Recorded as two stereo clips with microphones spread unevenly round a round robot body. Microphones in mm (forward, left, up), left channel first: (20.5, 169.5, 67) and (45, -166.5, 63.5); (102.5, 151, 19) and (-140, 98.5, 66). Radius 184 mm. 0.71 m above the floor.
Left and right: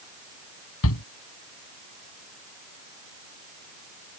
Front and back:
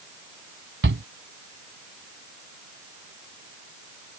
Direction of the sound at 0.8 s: 150° left.